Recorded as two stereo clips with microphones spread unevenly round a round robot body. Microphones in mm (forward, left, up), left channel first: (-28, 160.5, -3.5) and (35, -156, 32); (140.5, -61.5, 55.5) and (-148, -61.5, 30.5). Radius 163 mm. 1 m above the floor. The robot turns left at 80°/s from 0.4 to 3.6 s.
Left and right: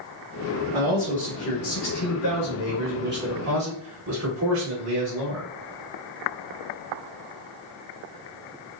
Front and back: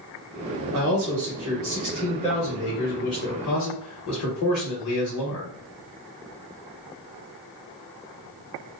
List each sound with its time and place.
0.7 s a man speaking: 155° right, 1.0 m; by 5.5 s 25° right, 1.0 m